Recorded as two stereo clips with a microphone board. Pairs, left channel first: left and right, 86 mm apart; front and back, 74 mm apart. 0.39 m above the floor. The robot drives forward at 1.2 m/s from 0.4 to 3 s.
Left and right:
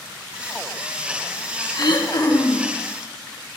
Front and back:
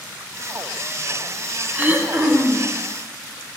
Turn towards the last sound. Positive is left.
turn(degrees=135)